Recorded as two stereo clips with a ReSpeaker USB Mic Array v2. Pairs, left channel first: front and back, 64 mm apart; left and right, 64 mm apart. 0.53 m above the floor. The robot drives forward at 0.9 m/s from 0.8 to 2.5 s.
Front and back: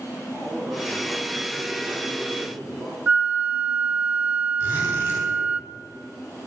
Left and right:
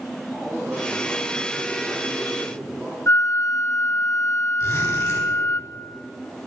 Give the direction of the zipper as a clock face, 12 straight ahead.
8 o'clock.